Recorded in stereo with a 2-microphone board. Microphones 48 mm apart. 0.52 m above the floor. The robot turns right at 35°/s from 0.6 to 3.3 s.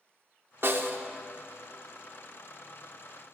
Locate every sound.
0.6 s a snare drum: 50° right (ahead or behind), 0.5 m; by 1.1 s 45° right (ahead or behind), 0.5 m